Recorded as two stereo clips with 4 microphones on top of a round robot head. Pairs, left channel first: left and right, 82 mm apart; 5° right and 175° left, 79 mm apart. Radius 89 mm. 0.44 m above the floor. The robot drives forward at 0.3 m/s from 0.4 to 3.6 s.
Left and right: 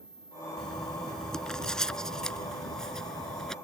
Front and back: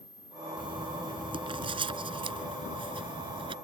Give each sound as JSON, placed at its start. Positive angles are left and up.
{"t": 0.6, "sound": "writing", "azimuth_deg": 175}